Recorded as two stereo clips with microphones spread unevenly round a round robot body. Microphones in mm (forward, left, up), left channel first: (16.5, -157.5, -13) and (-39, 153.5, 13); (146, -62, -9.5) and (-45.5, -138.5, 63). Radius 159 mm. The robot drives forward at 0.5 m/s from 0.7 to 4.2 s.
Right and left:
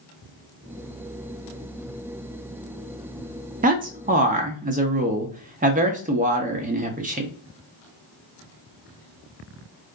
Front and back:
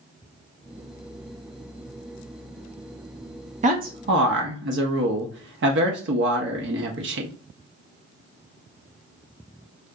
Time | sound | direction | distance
3.6 | a man speaking | 140° left | 0.5 m